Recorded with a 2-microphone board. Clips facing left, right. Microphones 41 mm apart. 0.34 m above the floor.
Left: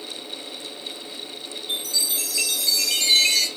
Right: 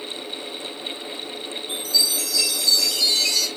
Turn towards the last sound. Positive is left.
turn(degrees=70)  # may be behind; listen again after turning